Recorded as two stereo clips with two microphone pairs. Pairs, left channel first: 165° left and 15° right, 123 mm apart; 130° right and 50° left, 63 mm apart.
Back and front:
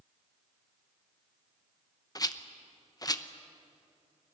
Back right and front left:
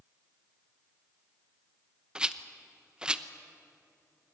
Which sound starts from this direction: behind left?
A rattle, at 2.1 s.